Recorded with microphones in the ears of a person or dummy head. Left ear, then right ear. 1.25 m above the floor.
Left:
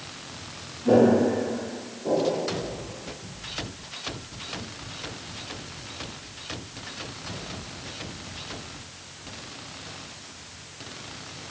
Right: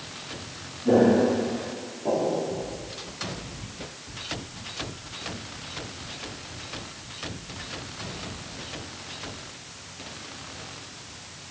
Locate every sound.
0.8 s footsteps: 10° left (ahead or behind), 2.0 m; by 2.4 s 15° right (ahead or behind), 1.8 m